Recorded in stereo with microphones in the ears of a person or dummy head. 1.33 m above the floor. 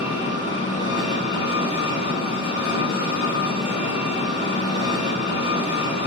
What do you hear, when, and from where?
0.0 s an engine running: 30° left (ahead or behind), 2.0 m